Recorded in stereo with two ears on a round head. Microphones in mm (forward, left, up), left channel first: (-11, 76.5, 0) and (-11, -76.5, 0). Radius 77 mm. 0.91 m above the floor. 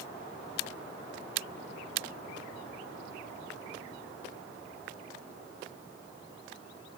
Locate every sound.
Only background noise.